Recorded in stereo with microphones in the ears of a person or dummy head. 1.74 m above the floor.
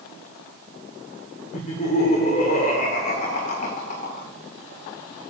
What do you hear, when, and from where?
1.5 s laughter: 45° left (ahead or behind), 1.7 m